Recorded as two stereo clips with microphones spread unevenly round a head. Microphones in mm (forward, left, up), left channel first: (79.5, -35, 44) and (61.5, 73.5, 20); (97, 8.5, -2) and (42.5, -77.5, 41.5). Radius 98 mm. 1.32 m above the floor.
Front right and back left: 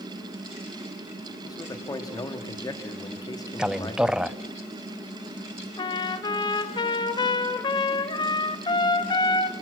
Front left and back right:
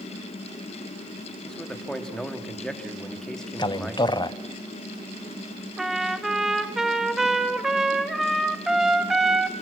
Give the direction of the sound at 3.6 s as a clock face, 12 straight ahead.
11 o'clock.